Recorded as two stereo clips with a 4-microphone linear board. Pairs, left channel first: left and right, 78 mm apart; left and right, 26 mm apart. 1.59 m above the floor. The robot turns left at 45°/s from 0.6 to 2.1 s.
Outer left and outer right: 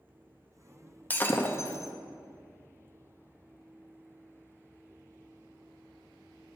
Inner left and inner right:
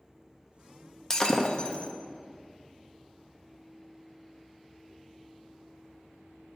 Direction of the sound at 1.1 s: 20° left (ahead or behind).